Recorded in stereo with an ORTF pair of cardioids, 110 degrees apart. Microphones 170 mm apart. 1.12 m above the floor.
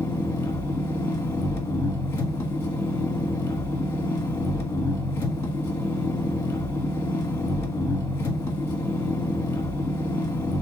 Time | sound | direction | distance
0.0 | an engine running | 15° left | 1.3 m